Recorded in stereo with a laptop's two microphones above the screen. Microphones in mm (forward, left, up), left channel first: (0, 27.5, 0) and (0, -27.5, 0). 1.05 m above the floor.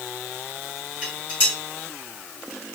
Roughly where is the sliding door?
I don't hear a sliding door.